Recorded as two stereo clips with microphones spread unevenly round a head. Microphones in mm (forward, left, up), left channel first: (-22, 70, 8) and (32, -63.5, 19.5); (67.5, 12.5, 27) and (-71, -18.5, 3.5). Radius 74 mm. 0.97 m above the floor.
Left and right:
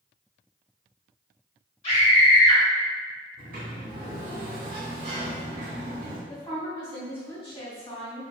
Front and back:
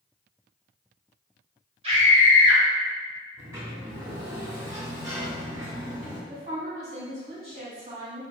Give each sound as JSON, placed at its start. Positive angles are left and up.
{"t": 1.8, "sound": "a scream", "azimuth_deg": 155, "distance_m": 1.7}
{"t": 3.4, "sound": "a sliding door", "azimuth_deg": -100, "distance_m": 1.4}
{"t": 6.3, "sound": "a woman speaking", "azimuth_deg": 160, "distance_m": 1.7}